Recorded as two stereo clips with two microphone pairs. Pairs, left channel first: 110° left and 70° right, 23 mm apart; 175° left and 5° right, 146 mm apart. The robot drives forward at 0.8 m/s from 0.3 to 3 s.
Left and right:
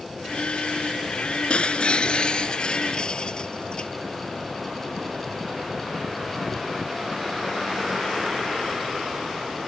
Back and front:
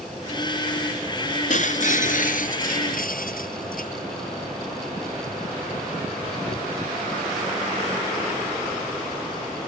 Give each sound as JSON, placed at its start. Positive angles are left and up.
{"t": 1.5, "sound": "breaking glass", "azimuth_deg": 145}